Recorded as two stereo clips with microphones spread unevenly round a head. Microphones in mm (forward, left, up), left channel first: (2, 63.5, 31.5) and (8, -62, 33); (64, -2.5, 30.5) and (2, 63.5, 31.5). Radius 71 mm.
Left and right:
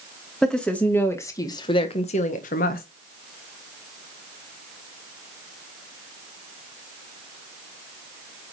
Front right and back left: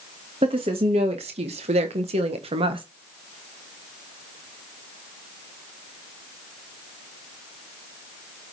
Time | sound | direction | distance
0.4 | a woman speaking | straight behind | 2 m